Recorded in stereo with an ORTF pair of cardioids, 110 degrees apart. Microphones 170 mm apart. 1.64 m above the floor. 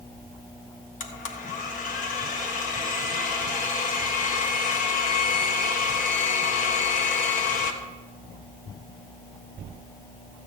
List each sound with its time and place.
1.0 s a blender: 50° left, 1.4 m